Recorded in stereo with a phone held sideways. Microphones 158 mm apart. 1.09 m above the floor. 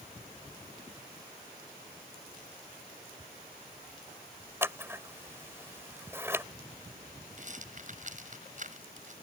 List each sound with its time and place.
4.6 s scissors: 15° right (ahead or behind)
7.4 s a rattle: 55° right (ahead or behind)